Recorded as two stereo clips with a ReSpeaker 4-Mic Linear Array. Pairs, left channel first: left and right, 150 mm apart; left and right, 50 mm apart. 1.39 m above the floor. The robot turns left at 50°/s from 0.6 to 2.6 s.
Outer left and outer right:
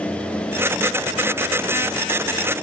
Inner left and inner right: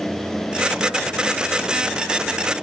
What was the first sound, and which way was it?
Only background noise.